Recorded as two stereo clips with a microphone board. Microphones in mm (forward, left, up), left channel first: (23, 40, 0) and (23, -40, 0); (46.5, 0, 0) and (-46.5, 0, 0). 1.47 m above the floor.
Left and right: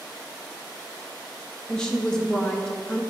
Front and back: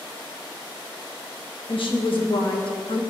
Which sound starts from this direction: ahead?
A woman speaking, at 1.7 s.